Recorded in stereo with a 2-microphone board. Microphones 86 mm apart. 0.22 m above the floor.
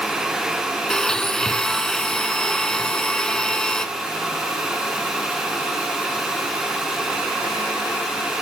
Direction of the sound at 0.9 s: 5° left (ahead or behind).